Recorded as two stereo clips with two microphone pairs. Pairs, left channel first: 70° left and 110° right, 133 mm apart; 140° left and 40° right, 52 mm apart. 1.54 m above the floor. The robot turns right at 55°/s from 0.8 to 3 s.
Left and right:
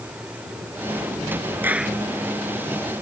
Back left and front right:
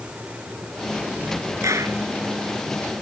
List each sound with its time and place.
1.6 s a clap: 35° right; by 2.0 s 15° right